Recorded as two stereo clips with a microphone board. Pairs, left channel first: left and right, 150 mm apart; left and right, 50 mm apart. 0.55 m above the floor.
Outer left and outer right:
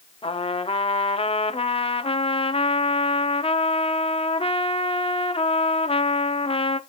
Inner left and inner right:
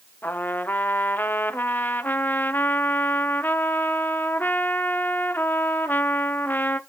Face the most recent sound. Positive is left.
turn(degrees=35)  # may be behind; listen again after turning